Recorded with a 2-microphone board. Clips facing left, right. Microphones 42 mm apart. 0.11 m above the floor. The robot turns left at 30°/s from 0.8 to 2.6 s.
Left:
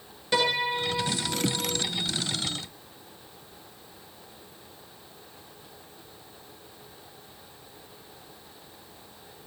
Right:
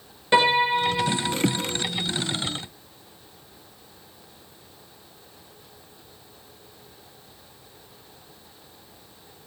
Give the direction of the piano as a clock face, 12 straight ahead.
3 o'clock.